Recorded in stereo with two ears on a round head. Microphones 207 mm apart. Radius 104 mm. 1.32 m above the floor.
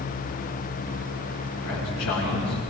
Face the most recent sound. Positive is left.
turn(degrees=85)